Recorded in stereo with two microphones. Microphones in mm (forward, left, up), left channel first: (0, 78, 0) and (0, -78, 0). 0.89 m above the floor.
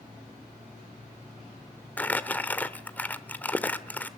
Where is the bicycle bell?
No bicycle bell in this recording.